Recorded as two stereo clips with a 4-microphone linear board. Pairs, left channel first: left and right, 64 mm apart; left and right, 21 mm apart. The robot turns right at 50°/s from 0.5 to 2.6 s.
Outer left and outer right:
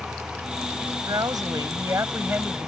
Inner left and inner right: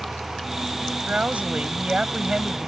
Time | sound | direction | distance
1.1 | a woman speaking | 95° right | ?